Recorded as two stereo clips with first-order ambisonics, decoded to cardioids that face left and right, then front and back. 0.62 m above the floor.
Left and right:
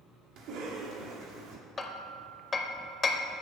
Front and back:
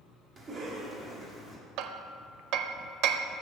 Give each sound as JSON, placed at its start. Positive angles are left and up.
{"t": 0.4, "sound": "a cough", "azimuth_deg": -115, "distance_m": 1.5}
{"t": 1.8, "sound": "hammering", "azimuth_deg": 160, "distance_m": 0.5}